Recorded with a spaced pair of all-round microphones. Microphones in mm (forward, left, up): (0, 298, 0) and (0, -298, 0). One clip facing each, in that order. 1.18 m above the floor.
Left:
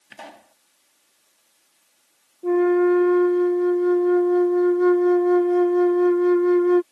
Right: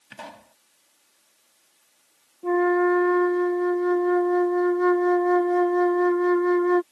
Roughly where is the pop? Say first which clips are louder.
Even; right.